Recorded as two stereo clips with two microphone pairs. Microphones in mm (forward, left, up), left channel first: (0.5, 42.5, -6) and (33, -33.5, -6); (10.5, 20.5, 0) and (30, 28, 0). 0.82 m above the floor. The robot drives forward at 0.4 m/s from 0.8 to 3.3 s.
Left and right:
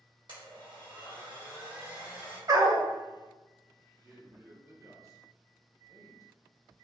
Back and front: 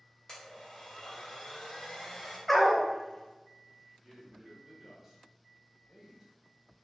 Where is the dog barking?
65° right, 0.5 m; by 2.9 s 90° right, 0.5 m.